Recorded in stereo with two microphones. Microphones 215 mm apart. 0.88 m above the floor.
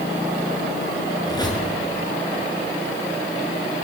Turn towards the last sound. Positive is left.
turn(degrees=20)  # may be behind; listen again after turning